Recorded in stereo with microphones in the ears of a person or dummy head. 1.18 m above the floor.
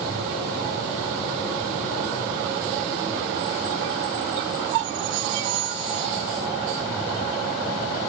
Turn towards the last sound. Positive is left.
No sound to turn to.